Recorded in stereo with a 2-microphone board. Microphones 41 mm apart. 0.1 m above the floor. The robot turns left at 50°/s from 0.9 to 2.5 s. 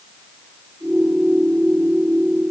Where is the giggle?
I don't hear a giggle.